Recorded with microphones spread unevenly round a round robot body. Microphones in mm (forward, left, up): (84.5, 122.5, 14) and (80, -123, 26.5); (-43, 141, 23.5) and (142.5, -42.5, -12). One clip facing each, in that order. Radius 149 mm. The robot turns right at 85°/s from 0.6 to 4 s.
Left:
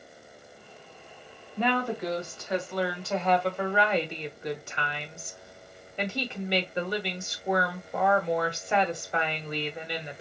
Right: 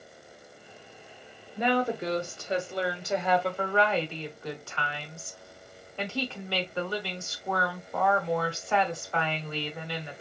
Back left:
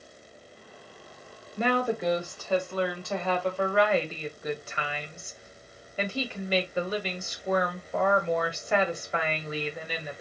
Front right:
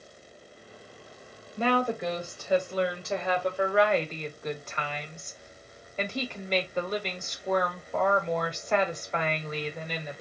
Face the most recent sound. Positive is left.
turn(degrees=45)